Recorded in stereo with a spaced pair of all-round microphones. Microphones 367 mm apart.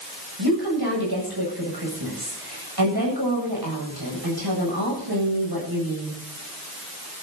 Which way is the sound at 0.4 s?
80° right.